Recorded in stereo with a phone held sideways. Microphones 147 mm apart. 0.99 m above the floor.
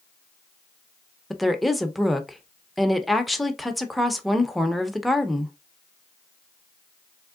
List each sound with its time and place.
1.3 s a woman speaking: centre (ahead or behind), 0.6 m